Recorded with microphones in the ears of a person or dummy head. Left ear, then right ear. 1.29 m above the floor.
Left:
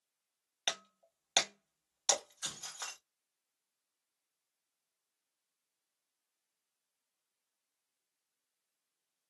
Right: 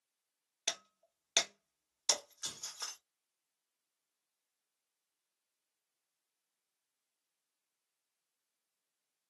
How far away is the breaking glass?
About 1.1 m.